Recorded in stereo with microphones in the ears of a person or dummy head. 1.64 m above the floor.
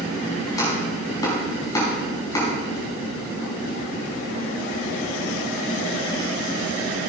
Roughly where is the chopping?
Left.